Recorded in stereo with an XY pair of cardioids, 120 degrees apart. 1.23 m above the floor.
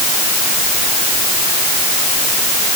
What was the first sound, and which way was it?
Only background noise.